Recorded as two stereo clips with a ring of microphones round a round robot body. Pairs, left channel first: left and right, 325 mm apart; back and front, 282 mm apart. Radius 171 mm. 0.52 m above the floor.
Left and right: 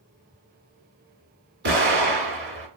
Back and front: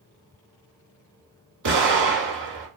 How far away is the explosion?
About 2 m.